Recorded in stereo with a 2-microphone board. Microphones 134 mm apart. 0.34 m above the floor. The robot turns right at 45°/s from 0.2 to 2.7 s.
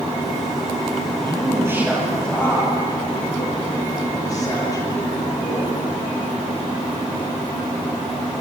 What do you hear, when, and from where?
1.2 s a man speaking: 40° right, 10 m; by 5.7 s 25° left, 10 m